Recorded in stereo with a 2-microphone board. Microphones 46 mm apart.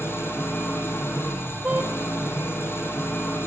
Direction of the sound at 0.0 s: 65° left (ahead or behind).